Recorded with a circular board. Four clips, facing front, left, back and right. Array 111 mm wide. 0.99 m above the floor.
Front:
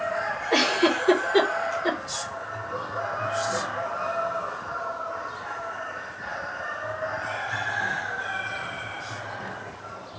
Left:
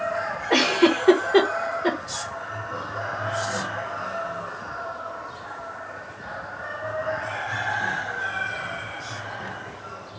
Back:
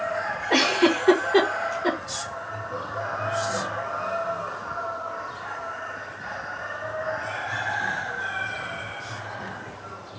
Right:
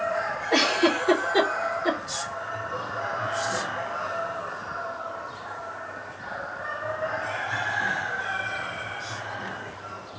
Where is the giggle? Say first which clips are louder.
Left 3 dB, back 2 dB; 120° left, 1.2 m.